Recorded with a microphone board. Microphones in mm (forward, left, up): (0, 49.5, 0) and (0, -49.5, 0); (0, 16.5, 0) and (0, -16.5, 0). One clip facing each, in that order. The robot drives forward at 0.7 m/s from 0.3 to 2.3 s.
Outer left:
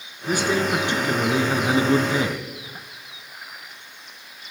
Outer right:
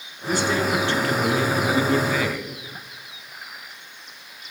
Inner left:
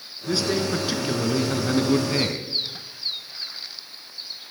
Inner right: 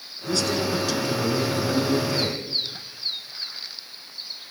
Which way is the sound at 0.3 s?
15° left (ahead or behind).